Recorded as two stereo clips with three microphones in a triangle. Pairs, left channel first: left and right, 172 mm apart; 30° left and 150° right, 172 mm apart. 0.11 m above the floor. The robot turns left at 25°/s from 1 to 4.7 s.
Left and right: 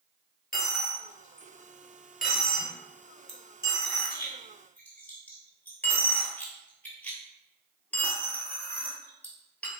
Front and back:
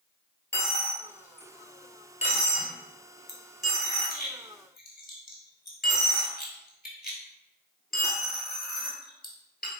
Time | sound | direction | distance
0.5 | a dropped coin | 100° left | 0.9 m